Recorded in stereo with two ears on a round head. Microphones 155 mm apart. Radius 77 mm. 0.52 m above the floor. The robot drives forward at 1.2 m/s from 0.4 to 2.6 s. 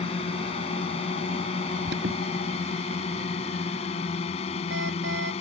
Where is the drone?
35° left (ahead or behind).